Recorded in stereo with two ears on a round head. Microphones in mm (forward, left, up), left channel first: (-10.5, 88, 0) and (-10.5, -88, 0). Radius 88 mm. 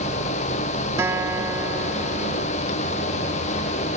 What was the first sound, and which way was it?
A guitar, 15° right (ahead or behind).